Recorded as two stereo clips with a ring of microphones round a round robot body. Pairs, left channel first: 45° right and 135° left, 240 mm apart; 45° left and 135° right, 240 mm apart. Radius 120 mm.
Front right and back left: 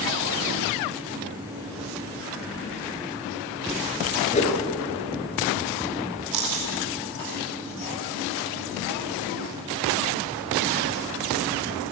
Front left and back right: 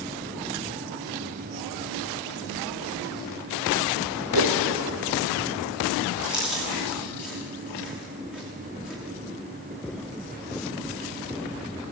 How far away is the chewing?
About 9.5 m.